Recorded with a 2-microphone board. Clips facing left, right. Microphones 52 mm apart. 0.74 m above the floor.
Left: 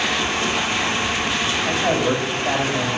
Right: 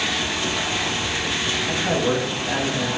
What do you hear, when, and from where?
1.7 s a man speaking: 60° left (ahead or behind), 3.5 m